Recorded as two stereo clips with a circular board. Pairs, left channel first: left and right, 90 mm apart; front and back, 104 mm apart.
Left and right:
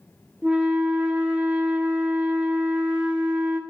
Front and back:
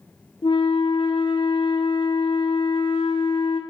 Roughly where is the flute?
Ahead.